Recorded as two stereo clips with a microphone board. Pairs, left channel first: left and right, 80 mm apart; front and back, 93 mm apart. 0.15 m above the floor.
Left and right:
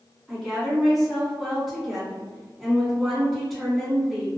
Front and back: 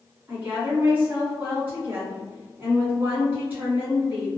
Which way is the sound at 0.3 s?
175° left.